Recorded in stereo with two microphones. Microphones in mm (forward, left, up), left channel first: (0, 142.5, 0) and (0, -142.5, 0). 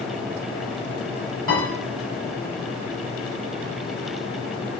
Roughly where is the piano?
Left.